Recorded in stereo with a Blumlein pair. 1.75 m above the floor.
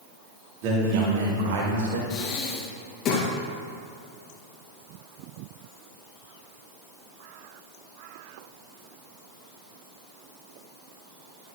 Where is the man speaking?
45° right, 3 m; by 2.0 s 65° right, 2 m.